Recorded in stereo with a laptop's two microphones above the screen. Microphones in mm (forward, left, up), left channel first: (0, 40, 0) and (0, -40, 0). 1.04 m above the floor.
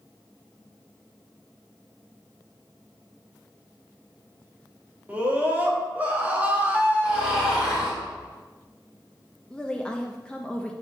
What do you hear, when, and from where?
5.1 s a scream: 20° right (ahead or behind), 1.3 m
7.0 s snoring: 5° right (ahead or behind), 3 m
9.5 s a woman speaking: 10° left (ahead or behind), 0.8 m